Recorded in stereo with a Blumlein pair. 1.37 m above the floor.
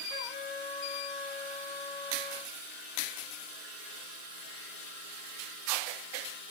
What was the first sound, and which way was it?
A trumpet, 30° left.